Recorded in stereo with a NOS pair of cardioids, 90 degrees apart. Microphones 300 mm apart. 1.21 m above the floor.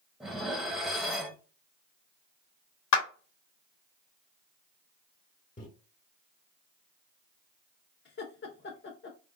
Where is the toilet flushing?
I don't hear a toilet flushing.